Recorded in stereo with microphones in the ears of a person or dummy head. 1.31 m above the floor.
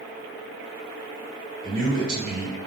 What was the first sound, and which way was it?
A man speaking, 50° right (ahead or behind).